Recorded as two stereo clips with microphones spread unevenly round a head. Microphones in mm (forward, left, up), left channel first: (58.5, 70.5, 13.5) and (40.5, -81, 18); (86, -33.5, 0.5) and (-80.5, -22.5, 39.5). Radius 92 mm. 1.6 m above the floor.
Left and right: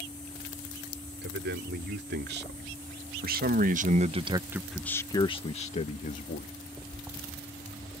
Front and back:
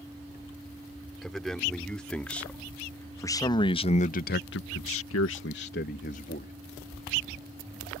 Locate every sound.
1.2 s a man speaking: 95° right; by 6.5 s 50° left